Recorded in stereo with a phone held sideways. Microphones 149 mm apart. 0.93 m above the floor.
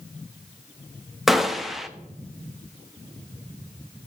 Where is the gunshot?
Centre (ahead or behind), 0.6 m.